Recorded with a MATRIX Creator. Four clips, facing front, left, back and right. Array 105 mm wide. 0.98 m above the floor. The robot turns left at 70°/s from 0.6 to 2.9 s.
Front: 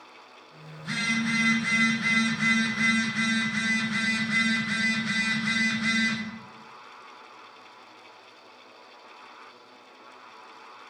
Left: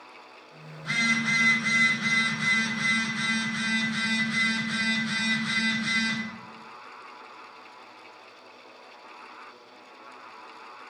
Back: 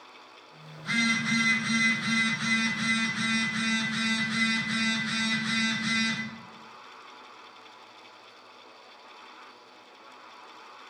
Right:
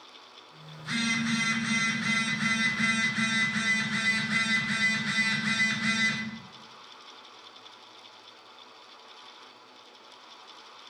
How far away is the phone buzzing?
About 4 m.